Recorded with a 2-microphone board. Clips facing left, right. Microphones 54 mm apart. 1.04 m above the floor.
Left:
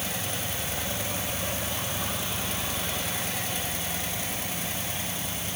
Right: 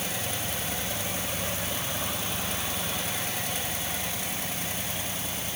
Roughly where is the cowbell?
No cowbell in this recording.